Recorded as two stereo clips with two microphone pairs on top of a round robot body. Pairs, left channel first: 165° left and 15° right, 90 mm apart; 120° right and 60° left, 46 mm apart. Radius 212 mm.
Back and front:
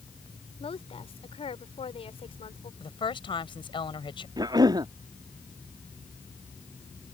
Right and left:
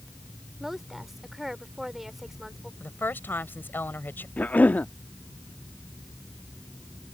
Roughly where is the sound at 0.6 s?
Behind left.